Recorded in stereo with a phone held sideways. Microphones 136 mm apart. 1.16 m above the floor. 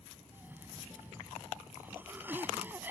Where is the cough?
15° right (ahead or behind).